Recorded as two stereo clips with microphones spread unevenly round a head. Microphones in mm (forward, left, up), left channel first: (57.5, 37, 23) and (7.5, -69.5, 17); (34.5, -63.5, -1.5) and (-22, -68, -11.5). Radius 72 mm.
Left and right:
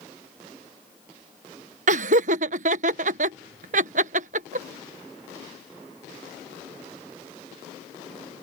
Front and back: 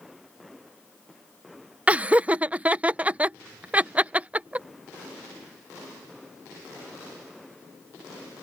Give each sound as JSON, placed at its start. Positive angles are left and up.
{"t": 1.9, "sound": "laughter", "azimuth_deg": -105}